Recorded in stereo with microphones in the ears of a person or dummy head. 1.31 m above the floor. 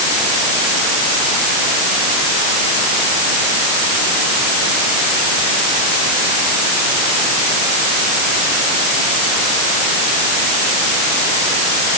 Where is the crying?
I don't hear crying.